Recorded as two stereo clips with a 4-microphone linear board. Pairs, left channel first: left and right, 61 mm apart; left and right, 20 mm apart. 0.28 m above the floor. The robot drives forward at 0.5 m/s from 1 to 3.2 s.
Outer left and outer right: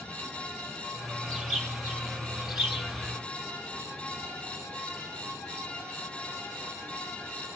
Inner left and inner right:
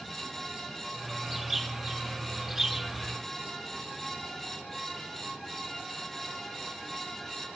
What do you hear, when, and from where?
1.3 s a bird: centre (ahead or behind), 2 m